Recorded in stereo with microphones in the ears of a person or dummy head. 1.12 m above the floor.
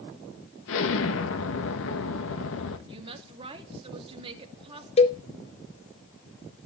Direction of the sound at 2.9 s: 30° right (ahead or behind).